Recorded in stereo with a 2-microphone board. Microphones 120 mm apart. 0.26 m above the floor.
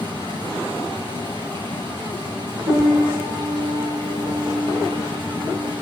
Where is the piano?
75° right (ahead or behind), 5 m.